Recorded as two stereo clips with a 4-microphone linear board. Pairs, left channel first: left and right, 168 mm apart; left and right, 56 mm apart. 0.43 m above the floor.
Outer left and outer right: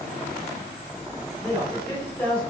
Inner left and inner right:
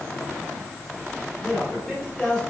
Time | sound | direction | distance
1.4 | a man speaking | 10° left (ahead or behind) | 2 m